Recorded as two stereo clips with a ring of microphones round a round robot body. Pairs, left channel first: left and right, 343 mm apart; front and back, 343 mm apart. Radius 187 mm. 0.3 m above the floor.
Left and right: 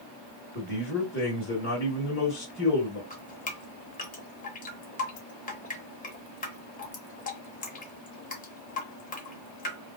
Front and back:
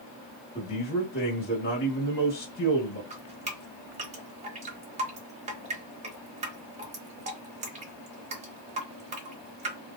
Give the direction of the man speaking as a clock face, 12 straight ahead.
10 o'clock.